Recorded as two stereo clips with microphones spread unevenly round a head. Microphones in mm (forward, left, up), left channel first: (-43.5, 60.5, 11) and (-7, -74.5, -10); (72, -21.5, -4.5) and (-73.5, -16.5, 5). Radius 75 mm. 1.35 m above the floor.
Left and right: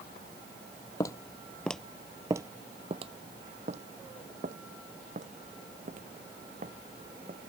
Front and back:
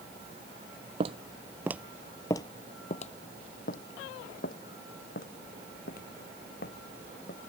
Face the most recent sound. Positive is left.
turn(degrees=-25)